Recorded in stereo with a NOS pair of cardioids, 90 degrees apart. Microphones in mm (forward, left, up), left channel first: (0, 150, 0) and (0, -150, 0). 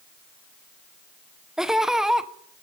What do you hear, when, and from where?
1.6 s laughter: straight ahead, 0.6 m